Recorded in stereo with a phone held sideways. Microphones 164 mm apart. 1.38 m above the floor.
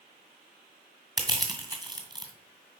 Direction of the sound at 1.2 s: 25° right (ahead or behind).